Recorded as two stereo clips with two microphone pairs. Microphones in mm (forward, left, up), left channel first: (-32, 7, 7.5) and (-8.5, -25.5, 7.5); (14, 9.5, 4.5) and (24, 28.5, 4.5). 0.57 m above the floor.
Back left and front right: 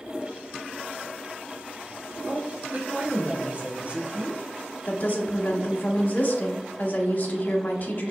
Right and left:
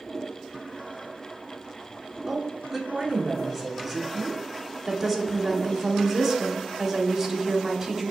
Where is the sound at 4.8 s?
140° left, 0.9 m.